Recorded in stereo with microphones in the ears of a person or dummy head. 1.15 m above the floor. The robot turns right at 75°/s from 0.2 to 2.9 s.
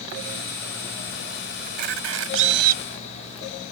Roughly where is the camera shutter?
Behind right.